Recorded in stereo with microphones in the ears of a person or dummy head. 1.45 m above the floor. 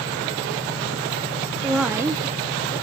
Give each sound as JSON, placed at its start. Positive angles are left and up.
{"t": 1.6, "sound": "a woman speaking", "side_deg": 5, "distance_m": 0.6}